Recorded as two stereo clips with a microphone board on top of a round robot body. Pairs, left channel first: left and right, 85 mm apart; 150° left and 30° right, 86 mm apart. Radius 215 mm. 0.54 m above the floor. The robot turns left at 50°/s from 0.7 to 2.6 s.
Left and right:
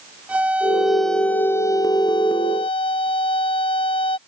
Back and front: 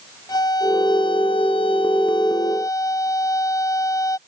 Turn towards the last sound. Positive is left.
turn(degrees=100)